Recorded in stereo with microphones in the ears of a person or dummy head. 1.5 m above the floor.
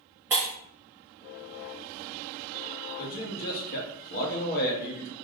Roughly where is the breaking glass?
Centre.